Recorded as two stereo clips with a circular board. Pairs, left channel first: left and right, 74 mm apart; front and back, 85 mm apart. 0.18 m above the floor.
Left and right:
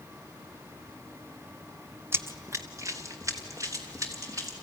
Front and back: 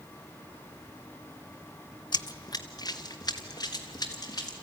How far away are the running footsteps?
About 0.5 m.